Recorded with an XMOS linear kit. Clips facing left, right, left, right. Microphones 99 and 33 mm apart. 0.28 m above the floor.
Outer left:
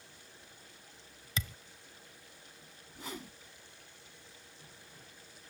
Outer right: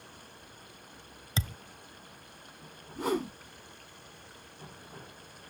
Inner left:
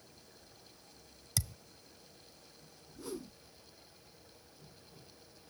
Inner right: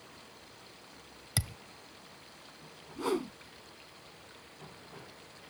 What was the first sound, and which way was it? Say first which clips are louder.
Running water: outer right 6 dB, inner right 7 dB; 60° right (ahead or behind).